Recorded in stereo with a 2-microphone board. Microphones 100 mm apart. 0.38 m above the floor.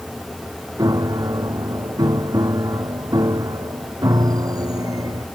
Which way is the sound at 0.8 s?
40° right (ahead or behind).